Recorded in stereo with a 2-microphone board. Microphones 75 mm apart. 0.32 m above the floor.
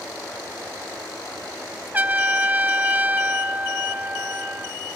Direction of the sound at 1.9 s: 25° right (ahead or behind).